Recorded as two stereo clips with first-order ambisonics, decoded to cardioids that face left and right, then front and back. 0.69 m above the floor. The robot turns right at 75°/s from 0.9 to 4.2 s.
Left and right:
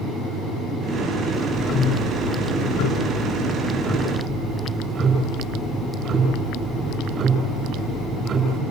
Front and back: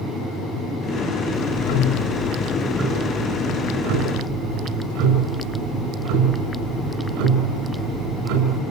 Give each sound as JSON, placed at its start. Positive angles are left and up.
{"t": 1.3, "sound": "ticking", "azimuth_deg": -10, "distance_m": 7.5}